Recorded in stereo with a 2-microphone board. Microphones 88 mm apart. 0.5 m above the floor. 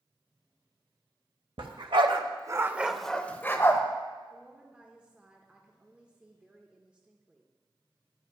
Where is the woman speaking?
15° right (ahead or behind), 0.9 m.